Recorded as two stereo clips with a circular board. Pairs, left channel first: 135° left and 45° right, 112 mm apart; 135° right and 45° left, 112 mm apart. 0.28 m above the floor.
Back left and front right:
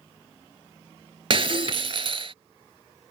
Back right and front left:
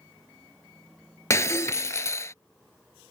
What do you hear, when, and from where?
1.3 s breaking glass: 75° right